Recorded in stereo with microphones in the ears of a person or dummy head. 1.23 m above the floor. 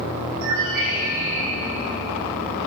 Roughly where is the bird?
Right.